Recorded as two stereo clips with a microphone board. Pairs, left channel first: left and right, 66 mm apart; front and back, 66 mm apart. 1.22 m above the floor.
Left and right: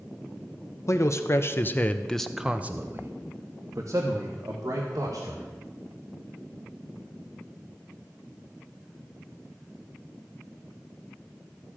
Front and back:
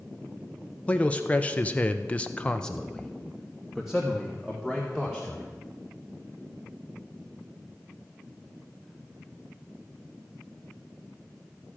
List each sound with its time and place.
0.9 s a man speaking: 65° left, 1.1 m; by 5.5 s 100° right, 2 m